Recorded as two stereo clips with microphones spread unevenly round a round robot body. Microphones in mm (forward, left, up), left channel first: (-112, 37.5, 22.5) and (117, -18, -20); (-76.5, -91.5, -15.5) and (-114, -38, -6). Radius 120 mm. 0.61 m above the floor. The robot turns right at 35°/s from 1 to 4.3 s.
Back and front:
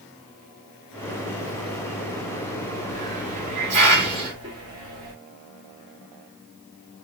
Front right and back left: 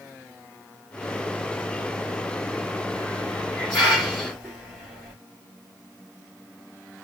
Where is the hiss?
15° right, 1.4 m; by 5.1 s 35° left, 1.4 m.